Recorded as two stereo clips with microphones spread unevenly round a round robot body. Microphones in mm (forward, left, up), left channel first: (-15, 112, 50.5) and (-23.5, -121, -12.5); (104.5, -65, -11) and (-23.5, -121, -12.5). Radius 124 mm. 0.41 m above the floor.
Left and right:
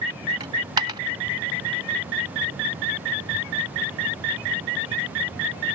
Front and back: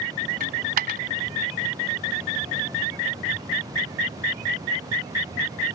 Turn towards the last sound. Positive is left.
turn(degrees=-160)